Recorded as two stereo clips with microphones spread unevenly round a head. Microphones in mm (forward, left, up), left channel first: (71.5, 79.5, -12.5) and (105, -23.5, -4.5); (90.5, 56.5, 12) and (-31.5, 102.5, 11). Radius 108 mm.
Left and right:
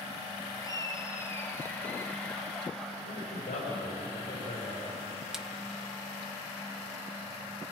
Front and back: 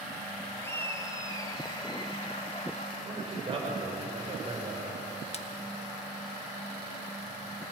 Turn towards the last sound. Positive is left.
turn(degrees=15)